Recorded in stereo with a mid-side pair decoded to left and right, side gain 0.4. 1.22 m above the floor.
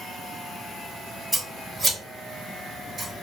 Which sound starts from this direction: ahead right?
Scissors, at 1.3 s.